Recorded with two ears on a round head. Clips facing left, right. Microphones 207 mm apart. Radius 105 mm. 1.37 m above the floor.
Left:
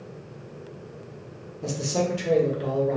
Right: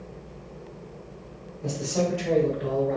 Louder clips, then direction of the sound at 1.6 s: Even; 60° left (ahead or behind).